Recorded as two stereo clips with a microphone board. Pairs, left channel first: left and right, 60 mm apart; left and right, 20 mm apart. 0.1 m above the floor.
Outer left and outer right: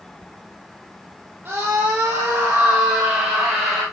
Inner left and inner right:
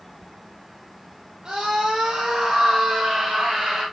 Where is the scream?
35° right (ahead or behind), 2.5 m; by 3.8 s 10° right (ahead or behind), 3 m.